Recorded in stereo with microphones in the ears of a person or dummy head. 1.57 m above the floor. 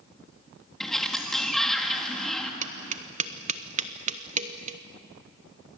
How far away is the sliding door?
About 2 m.